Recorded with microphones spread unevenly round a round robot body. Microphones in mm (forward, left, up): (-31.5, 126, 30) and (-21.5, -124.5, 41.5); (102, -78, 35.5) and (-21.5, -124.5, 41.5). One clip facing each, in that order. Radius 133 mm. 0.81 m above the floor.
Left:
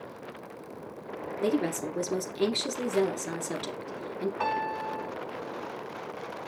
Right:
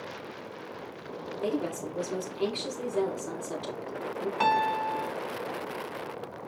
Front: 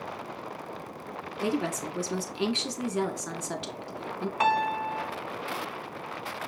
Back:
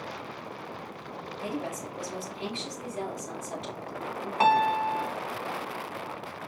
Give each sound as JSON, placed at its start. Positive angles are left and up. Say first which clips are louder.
{"t": 1.4, "sound": "a woman speaking", "louder": "left 3 dB, front 6 dB", "azimuth_deg": 30, "distance_m": 2.0}
{"t": 4.4, "sound": "a piano", "louder": "right 3 dB, back 4 dB", "azimuth_deg": -105, "distance_m": 0.8}